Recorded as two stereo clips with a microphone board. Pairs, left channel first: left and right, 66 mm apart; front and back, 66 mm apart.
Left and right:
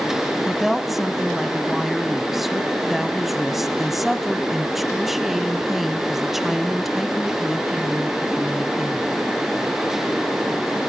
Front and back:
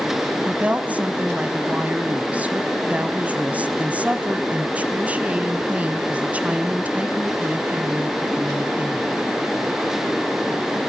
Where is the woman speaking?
170° right, 1.0 m.